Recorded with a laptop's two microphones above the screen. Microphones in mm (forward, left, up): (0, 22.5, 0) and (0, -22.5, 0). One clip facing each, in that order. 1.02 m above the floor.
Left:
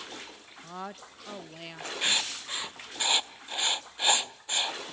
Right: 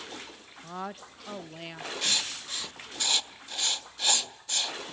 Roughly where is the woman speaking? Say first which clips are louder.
Right 2 dB; centre.